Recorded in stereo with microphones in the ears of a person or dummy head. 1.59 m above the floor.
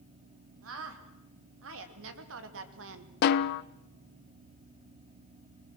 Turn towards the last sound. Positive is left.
turn(degrees=55)  # may be behind; listen again after turning